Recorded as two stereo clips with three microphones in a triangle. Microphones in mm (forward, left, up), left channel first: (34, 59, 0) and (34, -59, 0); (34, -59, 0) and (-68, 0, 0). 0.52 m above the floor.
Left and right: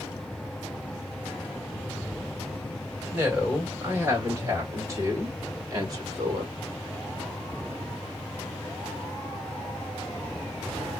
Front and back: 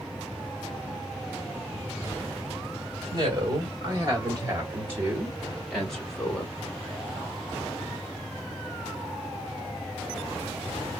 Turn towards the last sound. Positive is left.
turn(degrees=-90)